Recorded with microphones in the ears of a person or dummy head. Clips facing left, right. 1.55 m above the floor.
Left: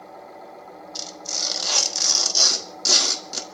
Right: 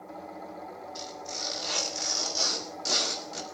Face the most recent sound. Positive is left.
turn(degrees=65)  # may be behind; listen again after turning